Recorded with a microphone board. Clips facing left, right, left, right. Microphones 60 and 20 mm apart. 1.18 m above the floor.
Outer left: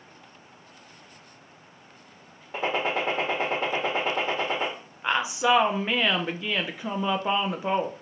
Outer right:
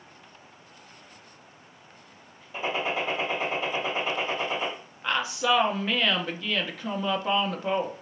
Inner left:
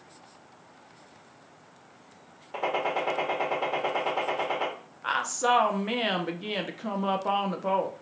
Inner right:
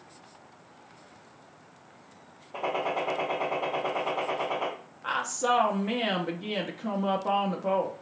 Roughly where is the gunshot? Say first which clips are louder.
Outer left 2 dB, inner left 1 dB; left.